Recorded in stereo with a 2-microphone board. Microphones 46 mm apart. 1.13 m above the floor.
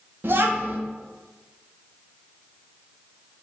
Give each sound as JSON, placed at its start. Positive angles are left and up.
{"t": 0.2, "sound": "a child speaking", "side_deg": -50, "distance_m": 1.0}